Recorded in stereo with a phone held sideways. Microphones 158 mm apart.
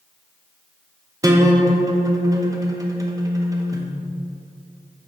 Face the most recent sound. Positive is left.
turn(degrees=-20)  # may be behind; listen again after turning